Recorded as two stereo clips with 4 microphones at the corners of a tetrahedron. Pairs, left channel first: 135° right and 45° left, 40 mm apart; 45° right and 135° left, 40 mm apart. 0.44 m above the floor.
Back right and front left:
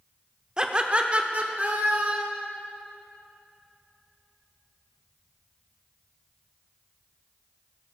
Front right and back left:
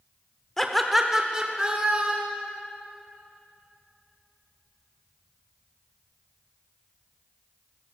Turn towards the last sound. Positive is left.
turn(degrees=90)